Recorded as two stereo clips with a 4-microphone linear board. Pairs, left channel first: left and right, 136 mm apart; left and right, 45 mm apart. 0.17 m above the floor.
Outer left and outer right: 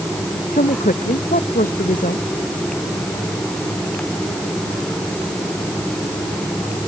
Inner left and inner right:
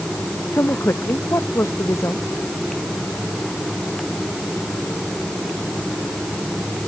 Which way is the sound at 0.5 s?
85° left.